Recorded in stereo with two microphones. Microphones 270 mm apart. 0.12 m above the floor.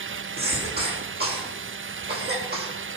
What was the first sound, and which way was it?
A cough, 35° right (ahead or behind).